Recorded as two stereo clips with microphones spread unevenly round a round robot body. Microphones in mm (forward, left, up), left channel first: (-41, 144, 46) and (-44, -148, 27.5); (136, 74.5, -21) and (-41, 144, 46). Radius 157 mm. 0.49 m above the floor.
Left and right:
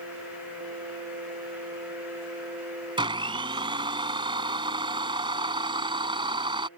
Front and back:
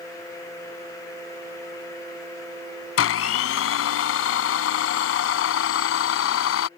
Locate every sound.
3.0 s a blender: 15° right